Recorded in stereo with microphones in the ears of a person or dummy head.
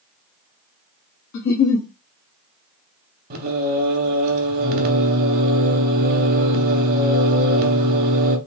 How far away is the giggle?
About 0.8 m.